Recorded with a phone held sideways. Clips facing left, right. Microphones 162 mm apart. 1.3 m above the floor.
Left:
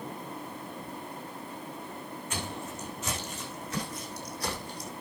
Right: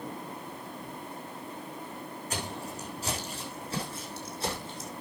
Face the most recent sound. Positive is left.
turn(degrees=-20)  # may be behind; listen again after turning